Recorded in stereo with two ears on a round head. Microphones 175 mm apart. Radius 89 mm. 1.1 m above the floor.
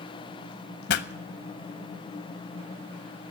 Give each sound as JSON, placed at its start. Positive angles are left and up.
{"t": 0.9, "sound": "a pop", "side_deg": 60, "distance_m": 0.7}